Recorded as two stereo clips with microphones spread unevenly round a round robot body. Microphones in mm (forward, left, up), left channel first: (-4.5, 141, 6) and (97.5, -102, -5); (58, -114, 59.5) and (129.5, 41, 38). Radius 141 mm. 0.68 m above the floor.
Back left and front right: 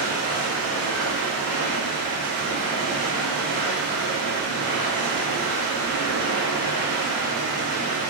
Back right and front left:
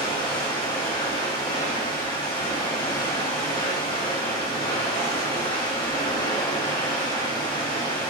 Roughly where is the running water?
Ahead right.